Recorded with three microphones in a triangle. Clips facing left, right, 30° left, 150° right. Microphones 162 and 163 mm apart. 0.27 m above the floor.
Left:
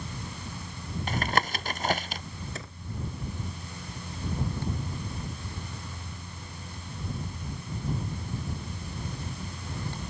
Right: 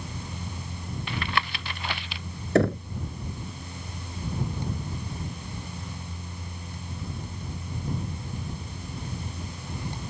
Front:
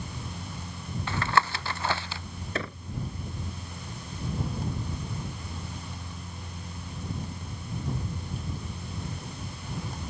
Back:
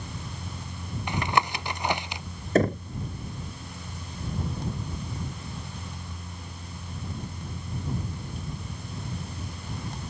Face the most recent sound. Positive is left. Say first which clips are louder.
# right 21 dB, back 13 dB
turn(degrees=-105)